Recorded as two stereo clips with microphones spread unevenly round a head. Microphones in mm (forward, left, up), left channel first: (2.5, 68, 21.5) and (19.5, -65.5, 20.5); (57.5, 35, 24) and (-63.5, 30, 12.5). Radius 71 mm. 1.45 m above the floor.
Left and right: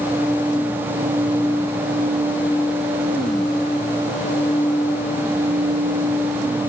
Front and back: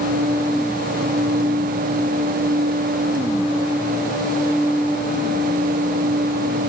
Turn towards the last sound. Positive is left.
No sound to turn to.